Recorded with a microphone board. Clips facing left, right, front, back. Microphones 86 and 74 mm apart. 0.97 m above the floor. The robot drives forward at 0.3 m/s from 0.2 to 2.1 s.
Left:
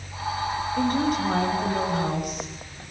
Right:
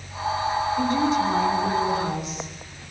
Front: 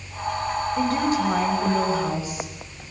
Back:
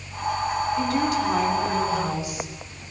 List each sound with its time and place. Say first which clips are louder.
0.8 s a woman speaking: even, front 4 dB; 50° left, 6.5 m; by 2.8 s 55° left, 6.5 m